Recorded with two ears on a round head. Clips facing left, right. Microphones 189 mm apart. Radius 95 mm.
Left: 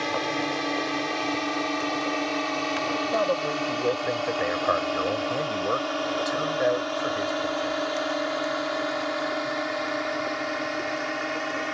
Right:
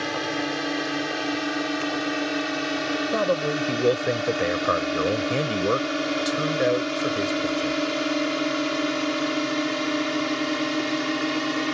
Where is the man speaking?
40° right (ahead or behind).